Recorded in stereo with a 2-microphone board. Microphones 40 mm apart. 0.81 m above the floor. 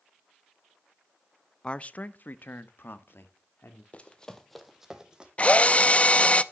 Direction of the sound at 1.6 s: 25° left (ahead or behind).